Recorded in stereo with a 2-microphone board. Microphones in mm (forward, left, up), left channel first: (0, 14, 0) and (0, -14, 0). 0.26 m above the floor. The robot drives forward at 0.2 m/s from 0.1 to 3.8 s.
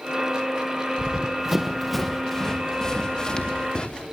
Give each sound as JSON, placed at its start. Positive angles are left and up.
{"t": 1.0, "sound": "running footsteps", "side_deg": -30, "distance_m": 1.8}